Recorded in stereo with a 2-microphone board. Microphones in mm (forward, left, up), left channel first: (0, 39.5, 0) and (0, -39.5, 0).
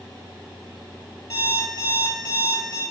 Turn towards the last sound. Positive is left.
turn(degrees=40)  # may be behind; listen again after turning